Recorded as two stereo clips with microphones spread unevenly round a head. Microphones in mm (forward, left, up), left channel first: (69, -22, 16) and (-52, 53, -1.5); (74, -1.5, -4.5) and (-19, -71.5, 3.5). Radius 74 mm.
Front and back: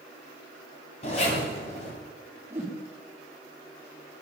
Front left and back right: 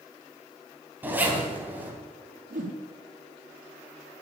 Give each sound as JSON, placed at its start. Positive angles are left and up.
{"t": 1.0, "sound": "a zipper", "azimuth_deg": -70, "distance_m": 3.5}
{"t": 2.5, "sound": "a whoosh", "azimuth_deg": -135, "distance_m": 3.5}